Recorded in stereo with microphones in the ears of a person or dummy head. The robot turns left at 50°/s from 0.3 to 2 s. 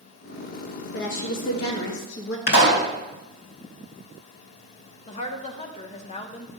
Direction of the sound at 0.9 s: 110° left.